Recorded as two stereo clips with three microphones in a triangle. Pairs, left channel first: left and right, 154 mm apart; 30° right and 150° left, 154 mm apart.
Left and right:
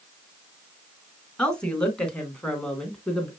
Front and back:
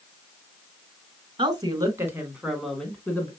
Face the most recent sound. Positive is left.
turn(degrees=15)